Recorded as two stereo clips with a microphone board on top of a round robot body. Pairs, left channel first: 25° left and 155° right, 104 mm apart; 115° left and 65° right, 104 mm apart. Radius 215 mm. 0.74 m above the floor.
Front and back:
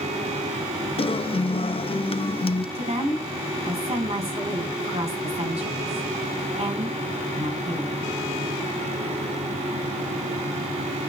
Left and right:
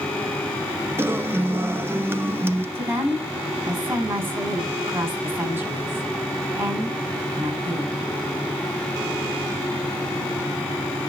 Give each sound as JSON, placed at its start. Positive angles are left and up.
{"t": 1.0, "sound": "a guitar", "azimuth_deg": 0, "distance_m": 1.2}
{"t": 2.8, "sound": "a woman speaking", "azimuth_deg": -140, "distance_m": 7.0}